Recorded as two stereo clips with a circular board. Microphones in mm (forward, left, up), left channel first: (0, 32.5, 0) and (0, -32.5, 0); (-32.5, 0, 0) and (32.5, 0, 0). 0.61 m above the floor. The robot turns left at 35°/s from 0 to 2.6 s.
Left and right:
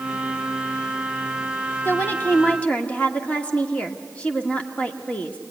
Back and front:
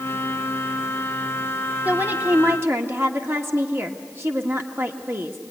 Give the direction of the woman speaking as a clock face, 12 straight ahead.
10 o'clock.